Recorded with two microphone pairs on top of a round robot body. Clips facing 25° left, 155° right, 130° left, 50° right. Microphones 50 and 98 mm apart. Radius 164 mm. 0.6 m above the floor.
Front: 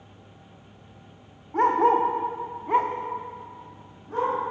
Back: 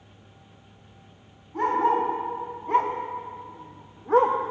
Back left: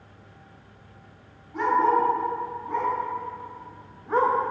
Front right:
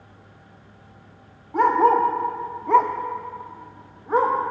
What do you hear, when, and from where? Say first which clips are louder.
1.5 s a dog barking: front 3 dB, front right 4 dB; 15° right, 0.9 m; by 4.4 s 135° right, 1.0 m